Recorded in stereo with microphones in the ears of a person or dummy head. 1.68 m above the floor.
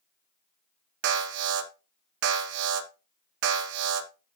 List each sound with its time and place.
1.0 s an alarm: 60° right (ahead or behind), 2 m